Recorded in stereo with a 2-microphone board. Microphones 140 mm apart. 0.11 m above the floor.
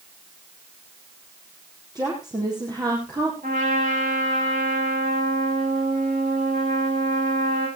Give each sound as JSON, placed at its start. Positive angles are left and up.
{"t": 1.9, "sound": "a woman speaking", "side_deg": -30, "distance_m": 4.5}
{"t": 3.4, "sound": "a trumpet", "side_deg": -80, "distance_m": 10.0}